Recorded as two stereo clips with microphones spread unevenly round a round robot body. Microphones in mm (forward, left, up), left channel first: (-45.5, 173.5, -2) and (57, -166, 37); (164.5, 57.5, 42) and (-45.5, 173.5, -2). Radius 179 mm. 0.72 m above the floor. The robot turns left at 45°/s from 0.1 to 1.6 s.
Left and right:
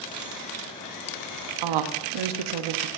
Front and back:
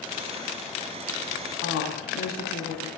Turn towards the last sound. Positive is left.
turn(degrees=-85)